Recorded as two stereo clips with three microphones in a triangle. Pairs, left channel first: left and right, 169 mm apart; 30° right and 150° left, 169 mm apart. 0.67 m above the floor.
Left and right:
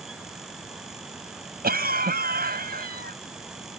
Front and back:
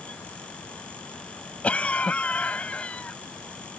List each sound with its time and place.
1.6 s a cough: 110° right